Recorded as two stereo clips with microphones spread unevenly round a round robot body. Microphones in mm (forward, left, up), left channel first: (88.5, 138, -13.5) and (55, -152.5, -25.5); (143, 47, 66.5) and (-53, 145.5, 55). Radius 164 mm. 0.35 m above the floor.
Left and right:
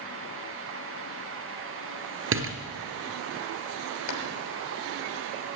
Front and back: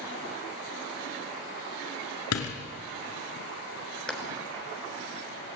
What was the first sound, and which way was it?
A door slam, 50° right.